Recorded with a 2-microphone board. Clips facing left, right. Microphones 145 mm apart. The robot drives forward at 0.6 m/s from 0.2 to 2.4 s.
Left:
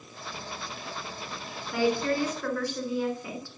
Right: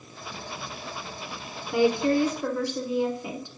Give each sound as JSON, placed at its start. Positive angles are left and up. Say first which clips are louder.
{"t": 1.7, "sound": "a woman speaking", "louder": "right 4 dB", "side_deg": -20, "distance_m": 1.2}